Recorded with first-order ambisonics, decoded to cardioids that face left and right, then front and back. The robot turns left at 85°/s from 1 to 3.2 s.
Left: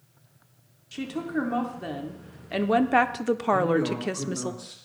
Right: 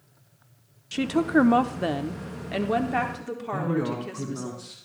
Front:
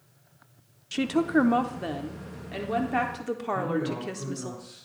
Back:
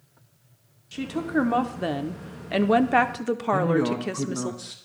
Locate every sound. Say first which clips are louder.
0.9 s a woman speaking: right 8 dB, front 3 dB; 50° right, 0.6 m; by 4.5 s 125° left, 0.6 m
3.5 s a man speaking: left 2 dB, back 6 dB; 165° right, 1.6 m